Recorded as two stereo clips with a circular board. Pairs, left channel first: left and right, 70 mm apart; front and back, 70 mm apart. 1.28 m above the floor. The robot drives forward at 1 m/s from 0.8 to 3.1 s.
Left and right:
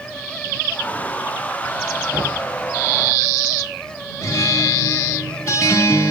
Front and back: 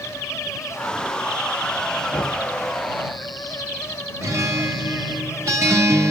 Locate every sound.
2.1 s a thud: 55° right, 4.5 m; by 2.5 s 60° right, 4 m
4.2 s a guitar: 135° left, 2.5 m